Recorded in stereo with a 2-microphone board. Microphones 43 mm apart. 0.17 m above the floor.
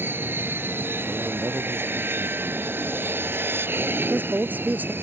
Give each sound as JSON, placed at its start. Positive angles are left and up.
{"t": 0.0, "sound": "an aircraft", "side_deg": -60}
{"t": 1.1, "sound": "a man speaking", "side_deg": -75}
{"t": 4.0, "sound": "a woman speaking", "side_deg": -45}